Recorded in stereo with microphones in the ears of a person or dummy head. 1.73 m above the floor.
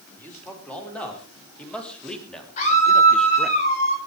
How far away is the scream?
About 6 m.